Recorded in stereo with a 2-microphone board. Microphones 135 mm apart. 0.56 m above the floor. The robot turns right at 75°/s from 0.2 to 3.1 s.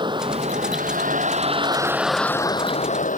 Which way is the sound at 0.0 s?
145° right.